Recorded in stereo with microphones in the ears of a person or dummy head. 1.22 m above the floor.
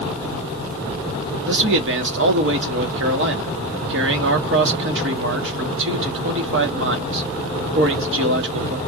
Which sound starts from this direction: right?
A man speaking, at 1.5 s.